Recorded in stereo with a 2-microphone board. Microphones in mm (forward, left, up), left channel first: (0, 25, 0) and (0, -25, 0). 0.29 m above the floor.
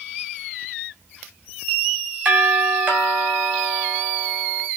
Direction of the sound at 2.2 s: 30° right (ahead or behind).